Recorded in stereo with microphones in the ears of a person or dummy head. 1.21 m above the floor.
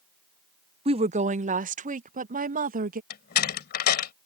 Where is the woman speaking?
25° right (ahead or behind); by 3.0 s 40° right (ahead or behind).